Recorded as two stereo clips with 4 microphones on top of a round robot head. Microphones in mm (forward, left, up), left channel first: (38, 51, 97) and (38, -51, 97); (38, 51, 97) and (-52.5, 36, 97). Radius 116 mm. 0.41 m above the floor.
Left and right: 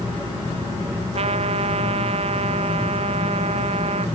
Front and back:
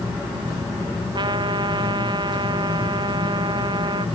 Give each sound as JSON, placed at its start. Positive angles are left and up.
{"t": 1.1, "sound": "a trumpet", "azimuth_deg": -120}